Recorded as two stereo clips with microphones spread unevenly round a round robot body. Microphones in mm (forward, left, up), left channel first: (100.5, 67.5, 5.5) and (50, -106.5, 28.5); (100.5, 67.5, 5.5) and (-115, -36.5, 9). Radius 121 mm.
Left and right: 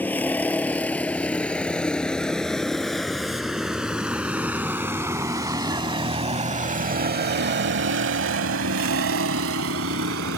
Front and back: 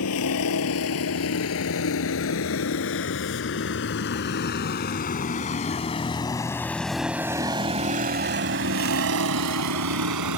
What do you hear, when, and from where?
0.0 s a vehicle: 5° right; by 10.4 s 135° right